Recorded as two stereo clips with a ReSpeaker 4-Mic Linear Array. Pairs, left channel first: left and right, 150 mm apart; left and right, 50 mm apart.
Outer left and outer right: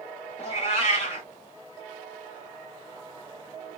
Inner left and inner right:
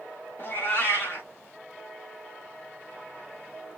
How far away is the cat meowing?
About 0.9 m.